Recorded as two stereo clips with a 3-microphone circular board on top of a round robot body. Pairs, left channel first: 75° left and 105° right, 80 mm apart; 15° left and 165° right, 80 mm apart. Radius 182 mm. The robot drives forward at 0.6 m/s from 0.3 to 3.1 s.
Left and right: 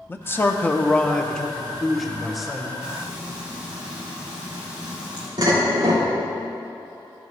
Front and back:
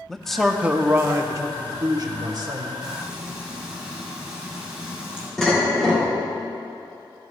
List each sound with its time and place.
0.1 s a man speaking: 100° left, 0.8 m; by 2.7 s 170° left, 1.7 m
2.8 s frying: 105° right, 1.0 m; by 5.3 s 120° right, 1.1 m
5.4 s dishes clattering: 70° right, 3 m